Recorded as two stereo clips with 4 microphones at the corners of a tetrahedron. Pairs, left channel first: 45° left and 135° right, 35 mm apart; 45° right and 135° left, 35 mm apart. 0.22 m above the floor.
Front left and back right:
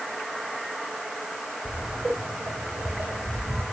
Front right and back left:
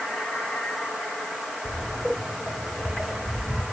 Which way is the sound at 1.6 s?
150° right.